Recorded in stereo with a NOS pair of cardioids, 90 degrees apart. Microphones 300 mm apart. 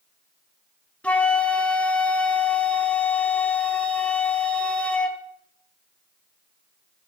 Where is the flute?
5° left, 1.2 m.